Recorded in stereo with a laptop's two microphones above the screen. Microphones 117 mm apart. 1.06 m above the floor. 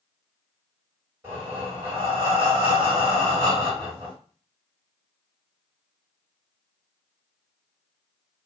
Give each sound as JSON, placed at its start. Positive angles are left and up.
{"t": 1.2, "sound": "breathing", "side_deg": -20, "distance_m": 1.5}